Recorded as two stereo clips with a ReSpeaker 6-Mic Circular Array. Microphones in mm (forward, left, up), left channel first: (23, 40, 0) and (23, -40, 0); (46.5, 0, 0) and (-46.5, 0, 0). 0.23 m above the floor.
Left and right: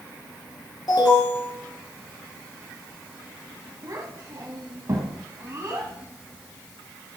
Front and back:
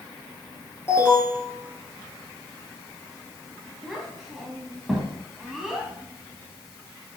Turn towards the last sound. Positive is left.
turn(degrees=-95)